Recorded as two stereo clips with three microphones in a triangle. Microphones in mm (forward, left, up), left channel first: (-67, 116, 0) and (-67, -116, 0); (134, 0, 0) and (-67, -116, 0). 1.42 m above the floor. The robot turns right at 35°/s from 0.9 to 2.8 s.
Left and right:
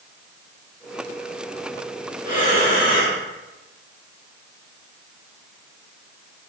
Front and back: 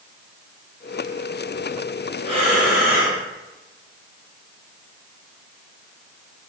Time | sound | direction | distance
2.2 | breathing | 140° left | 1.4 m